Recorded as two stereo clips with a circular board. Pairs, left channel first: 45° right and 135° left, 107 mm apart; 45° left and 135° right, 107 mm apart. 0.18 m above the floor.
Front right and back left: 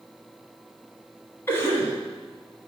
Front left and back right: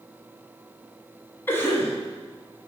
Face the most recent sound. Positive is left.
turn(degrees=0)